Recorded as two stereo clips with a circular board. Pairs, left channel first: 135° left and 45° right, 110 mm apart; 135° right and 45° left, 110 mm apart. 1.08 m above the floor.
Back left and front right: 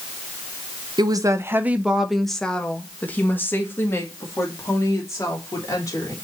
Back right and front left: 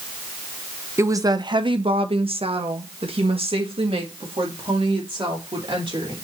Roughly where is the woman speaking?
Ahead.